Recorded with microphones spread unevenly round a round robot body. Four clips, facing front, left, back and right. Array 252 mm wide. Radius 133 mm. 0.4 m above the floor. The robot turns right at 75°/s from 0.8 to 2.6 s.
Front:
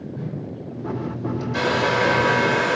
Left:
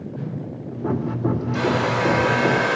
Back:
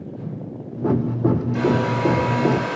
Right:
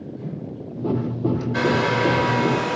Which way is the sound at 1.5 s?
45° right.